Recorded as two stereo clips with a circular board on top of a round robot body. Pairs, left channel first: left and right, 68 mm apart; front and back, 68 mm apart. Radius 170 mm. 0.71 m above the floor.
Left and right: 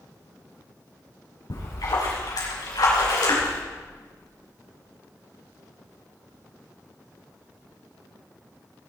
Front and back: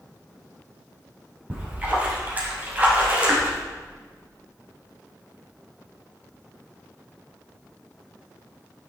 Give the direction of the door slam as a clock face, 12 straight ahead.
No door slam in this recording.